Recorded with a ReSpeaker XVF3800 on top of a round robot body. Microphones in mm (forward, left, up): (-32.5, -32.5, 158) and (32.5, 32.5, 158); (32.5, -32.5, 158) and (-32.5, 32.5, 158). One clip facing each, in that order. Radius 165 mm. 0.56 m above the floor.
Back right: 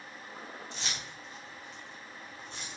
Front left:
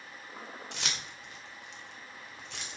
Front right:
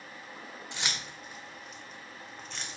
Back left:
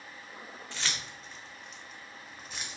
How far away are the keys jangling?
About 1.9 m.